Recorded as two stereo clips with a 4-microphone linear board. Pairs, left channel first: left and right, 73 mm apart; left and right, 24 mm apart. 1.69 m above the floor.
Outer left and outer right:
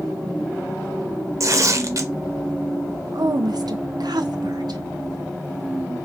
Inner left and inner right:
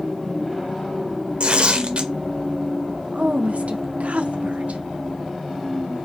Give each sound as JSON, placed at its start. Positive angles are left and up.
{"t": 1.4, "sound": "tearing paper", "side_deg": -50, "distance_m": 0.5}
{"t": 3.1, "sound": "a woman speaking", "side_deg": -75, "distance_m": 0.6}